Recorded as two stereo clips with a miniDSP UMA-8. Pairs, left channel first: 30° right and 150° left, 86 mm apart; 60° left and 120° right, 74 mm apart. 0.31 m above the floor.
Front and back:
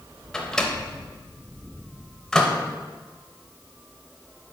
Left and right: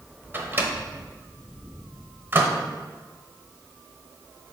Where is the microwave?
105° right, 0.8 m.